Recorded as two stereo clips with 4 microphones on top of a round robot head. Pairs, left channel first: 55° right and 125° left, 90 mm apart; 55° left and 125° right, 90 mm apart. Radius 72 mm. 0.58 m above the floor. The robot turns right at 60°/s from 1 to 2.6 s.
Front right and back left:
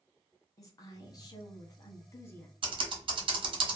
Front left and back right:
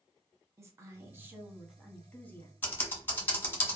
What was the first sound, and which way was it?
A woman speaking, 80° right.